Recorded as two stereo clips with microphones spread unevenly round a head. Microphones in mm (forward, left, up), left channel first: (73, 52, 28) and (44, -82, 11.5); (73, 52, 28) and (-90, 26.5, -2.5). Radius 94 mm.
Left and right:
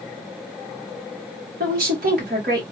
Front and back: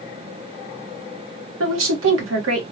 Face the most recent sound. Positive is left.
turn(degrees=-150)